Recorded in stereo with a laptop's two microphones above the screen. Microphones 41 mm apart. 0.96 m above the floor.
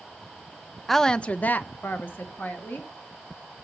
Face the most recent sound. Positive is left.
turn(degrees=50)  # may be behind; listen again after turning